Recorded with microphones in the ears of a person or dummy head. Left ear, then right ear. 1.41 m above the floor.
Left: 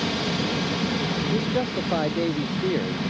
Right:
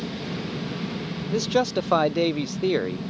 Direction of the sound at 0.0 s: 50° left (ahead or behind).